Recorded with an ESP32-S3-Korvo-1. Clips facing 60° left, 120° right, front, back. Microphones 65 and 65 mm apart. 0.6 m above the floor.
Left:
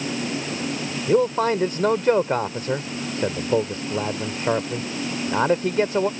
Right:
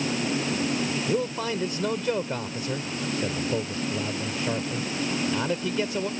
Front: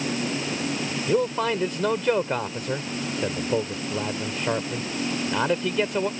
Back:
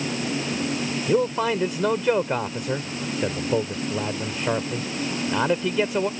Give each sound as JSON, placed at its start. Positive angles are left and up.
{"t": 1.1, "sound": "a man speaking", "azimuth_deg": 95}